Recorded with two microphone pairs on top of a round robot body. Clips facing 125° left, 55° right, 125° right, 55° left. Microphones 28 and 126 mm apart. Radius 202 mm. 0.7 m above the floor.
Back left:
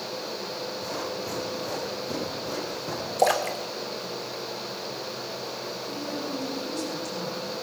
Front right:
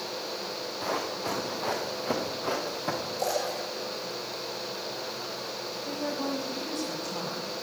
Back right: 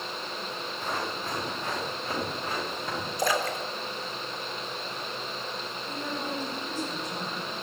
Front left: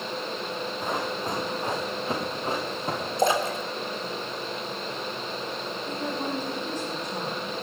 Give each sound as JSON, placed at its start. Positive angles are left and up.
{"t": 0.8, "sound": "running footsteps", "azimuth_deg": -20, "distance_m": 7.5}
{"t": 3.2, "sound": "a splash", "azimuth_deg": 120, "distance_m": 3.5}
{"t": 5.8, "sound": "a woman speaking", "azimuth_deg": -20, "distance_m": 6.0}